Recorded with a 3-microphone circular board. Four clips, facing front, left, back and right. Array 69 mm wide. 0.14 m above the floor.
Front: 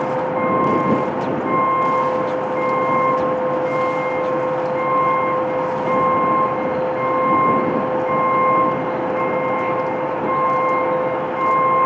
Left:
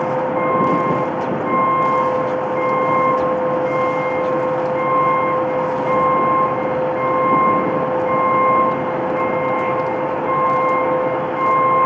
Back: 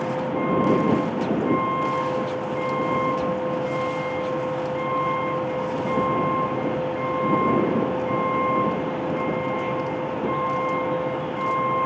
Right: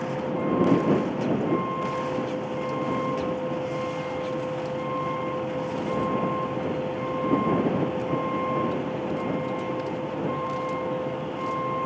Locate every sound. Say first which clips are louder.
0.0 s a vehicle: left 10 dB, front 5 dB; 60° left